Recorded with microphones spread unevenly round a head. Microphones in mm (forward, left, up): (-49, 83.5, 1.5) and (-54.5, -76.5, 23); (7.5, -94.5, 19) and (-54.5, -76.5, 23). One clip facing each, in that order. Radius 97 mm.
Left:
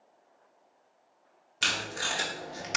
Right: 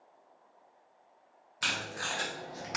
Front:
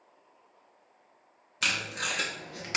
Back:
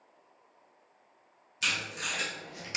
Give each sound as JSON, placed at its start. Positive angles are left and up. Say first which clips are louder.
{"t": 1.6, "sound": "tape being pulled", "louder": "left 3 dB, front 2 dB", "azimuth_deg": 20, "distance_m": 0.5}